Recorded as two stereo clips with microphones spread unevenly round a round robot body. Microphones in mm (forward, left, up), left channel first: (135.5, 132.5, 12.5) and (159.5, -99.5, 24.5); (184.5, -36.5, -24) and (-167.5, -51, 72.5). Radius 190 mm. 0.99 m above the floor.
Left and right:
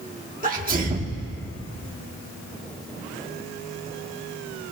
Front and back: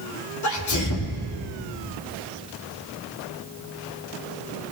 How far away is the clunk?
No clunk in this recording.